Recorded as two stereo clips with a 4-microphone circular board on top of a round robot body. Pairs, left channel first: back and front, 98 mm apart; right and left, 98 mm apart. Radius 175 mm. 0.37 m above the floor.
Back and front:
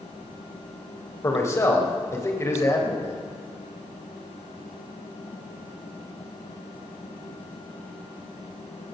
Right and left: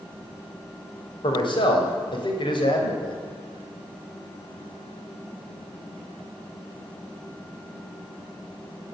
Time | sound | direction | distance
1.2 | a man speaking | 120° right | 3 m